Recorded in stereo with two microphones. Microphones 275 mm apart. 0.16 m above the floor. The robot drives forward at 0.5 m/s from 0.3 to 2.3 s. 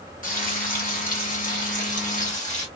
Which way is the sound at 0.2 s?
30° left (ahead or behind).